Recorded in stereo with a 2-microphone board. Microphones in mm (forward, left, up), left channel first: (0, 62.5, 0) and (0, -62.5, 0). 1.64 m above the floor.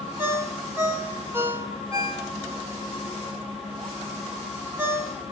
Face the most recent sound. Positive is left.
turn(degrees=-20)  # may be behind; listen again after turning